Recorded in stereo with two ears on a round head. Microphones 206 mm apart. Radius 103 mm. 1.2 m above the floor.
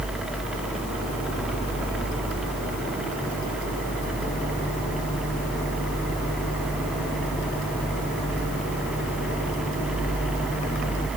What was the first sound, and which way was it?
Only background noise.